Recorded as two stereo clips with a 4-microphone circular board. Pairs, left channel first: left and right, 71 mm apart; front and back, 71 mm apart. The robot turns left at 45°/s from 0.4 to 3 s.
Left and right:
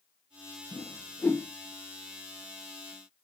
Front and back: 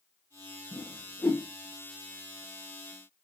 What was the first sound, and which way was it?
A whoosh, 65° left.